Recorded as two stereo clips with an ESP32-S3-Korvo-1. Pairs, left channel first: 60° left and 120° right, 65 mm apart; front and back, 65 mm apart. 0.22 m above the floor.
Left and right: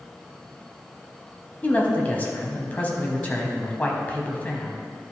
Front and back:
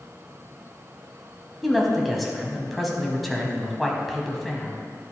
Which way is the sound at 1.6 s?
90° left.